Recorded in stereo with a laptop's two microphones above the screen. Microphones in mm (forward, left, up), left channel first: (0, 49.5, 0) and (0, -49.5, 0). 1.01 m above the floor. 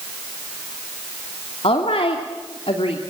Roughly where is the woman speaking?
Left.